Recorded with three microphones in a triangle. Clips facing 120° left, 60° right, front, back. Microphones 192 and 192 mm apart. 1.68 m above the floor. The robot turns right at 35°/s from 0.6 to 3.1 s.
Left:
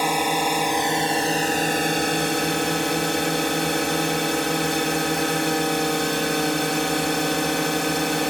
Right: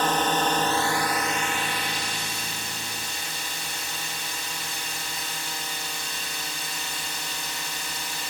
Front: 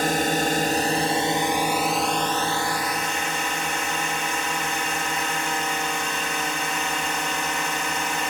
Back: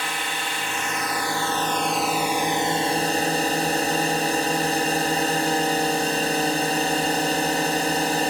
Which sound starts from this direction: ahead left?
A drone, at 0.0 s.